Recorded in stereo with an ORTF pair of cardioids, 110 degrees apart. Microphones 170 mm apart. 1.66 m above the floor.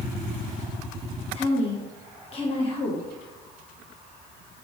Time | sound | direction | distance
1.3 | a woman speaking | 35° left | 1.4 m